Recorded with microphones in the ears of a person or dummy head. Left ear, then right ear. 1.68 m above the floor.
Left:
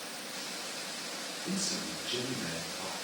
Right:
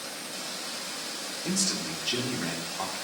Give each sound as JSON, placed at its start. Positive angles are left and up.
{"t": 1.4, "sound": "a man speaking", "side_deg": -35, "distance_m": 1.2}